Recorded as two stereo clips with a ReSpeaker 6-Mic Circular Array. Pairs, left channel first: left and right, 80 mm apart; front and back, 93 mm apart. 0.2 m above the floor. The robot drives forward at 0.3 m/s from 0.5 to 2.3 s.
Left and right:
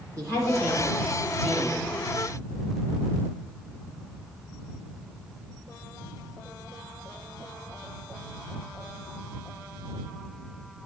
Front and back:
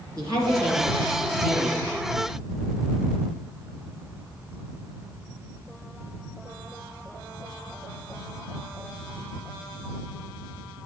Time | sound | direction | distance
0.2 | a woman speaking | 135° right | 3 m